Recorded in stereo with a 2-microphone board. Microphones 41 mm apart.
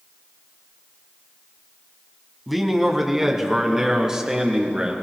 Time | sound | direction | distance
2.5 | a man speaking | 5° right (ahead or behind) | 1.5 m